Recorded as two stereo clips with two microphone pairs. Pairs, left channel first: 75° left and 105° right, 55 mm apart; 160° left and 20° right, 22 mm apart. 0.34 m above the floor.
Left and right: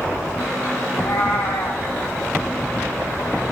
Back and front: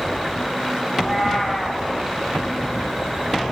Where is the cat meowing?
100° left, 8.5 m.